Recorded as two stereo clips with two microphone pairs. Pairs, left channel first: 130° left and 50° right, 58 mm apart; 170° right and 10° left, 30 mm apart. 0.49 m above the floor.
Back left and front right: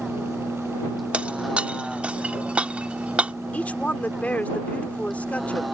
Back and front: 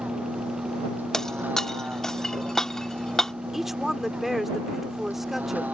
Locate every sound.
0.0 s a vehicle: 35° left
1.1 s breaking glass: 105° right
3.5 s a woman speaking: 85° left